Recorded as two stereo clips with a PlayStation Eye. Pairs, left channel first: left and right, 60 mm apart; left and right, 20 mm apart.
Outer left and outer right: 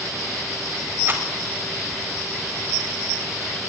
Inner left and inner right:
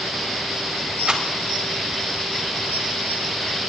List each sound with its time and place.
1.1 s a rattle: 40° right (ahead or behind), 4 m